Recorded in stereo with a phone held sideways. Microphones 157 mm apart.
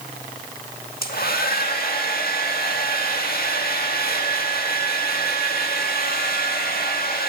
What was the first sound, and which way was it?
A hair dryer, 75° left (ahead or behind).